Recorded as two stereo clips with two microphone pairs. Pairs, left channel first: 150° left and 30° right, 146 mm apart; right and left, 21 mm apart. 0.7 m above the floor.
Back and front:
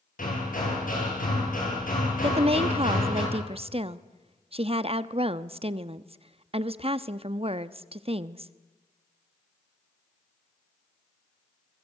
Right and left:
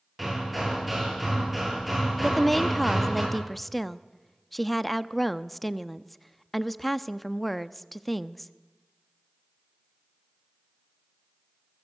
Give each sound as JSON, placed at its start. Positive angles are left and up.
{"t": 0.2, "sound": "hammering", "azimuth_deg": 175, "distance_m": 9.5}
{"t": 2.2, "sound": "a woman speaking", "azimuth_deg": -10, "distance_m": 0.8}